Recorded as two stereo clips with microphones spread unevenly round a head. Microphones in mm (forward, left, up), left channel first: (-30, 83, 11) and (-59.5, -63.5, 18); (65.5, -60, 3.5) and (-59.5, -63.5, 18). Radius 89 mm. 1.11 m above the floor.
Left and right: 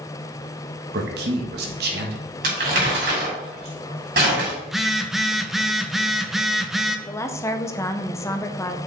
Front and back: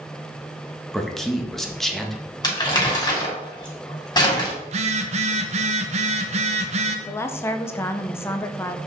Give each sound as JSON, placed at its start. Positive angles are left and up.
{"t": 0.9, "sound": "a man speaking", "azimuth_deg": -85, "distance_m": 1.6}
{"t": 2.4, "sound": "crumpling", "azimuth_deg": -60, "distance_m": 3.5}
{"t": 4.6, "sound": "a phone buzzing", "azimuth_deg": 170, "distance_m": 0.8}
{"t": 7.1, "sound": "a woman speaking", "azimuth_deg": 35, "distance_m": 0.6}